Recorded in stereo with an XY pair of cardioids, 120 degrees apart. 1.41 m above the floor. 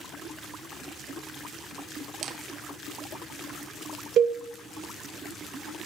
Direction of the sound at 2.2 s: 50° right.